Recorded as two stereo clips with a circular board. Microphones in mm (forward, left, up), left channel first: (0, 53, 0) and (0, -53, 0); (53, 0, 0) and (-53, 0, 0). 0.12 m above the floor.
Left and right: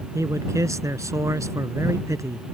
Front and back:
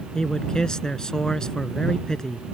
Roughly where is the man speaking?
Right.